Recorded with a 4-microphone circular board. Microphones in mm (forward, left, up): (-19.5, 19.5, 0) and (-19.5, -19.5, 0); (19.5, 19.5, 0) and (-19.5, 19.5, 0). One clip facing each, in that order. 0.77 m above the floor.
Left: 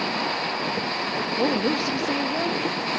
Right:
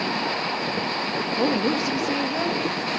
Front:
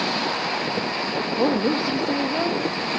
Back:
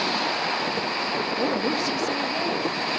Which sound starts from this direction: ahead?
A woman speaking, at 1.3 s.